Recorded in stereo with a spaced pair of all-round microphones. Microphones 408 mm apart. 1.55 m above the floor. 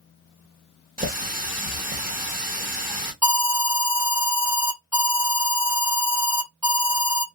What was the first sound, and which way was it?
A running tap, 20° right (ahead or behind).